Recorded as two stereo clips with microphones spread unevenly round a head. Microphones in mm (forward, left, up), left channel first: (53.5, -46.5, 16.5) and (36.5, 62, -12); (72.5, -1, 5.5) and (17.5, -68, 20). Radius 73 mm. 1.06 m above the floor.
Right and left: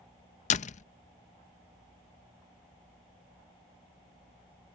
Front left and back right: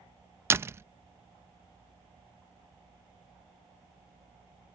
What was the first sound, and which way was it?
A door slam, 65° right.